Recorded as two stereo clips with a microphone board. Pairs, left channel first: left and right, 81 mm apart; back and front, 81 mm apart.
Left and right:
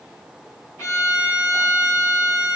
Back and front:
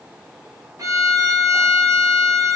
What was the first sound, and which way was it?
A violin, 35° left.